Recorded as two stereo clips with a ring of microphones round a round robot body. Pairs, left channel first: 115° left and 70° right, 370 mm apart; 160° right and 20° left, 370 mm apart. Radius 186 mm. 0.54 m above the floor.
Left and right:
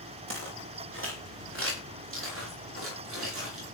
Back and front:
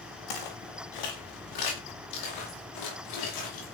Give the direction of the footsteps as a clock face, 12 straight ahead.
4 o'clock.